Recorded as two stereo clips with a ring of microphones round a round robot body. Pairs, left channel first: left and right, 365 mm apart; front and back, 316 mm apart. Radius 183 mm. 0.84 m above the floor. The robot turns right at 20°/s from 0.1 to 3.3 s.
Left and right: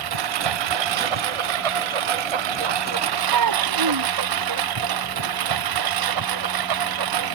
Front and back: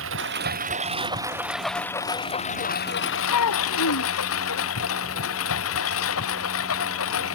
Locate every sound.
0.0 s a lawn mower: 120° right; by 7.4 s 55° right
3.3 s a child speaking: 50° right